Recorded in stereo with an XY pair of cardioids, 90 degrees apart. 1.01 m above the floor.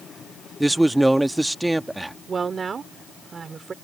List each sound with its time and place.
0.6 s a man speaking: 10° right
2.3 s a woman speaking: 45° right